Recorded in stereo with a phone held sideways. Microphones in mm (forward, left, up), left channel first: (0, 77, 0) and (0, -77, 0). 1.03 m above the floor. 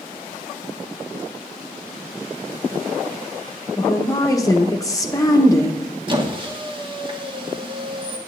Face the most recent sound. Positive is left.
turn(degrees=-30)  # may be behind; listen again after turning